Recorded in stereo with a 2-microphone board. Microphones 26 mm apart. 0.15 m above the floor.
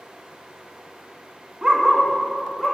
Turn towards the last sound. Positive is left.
turn(degrees=10)  # may be behind; listen again after turning